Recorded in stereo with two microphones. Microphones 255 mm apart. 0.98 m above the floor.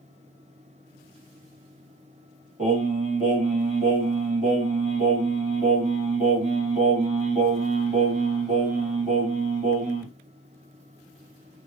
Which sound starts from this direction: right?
Singing, at 2.6 s.